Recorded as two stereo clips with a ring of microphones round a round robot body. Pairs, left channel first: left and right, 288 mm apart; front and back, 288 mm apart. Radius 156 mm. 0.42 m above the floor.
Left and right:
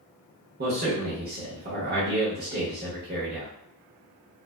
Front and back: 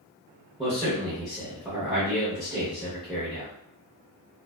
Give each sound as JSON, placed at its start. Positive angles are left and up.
{"t": 0.6, "sound": "a man speaking", "azimuth_deg": -90, "distance_m": 0.8}